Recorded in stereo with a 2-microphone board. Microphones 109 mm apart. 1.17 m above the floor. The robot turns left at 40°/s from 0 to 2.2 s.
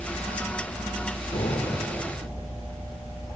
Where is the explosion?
80° left, 5 m; by 1.9 s 55° left (ahead or behind), 5 m.